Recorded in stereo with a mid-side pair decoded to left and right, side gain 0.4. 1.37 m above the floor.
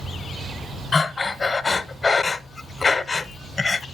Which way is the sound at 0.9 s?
35° left.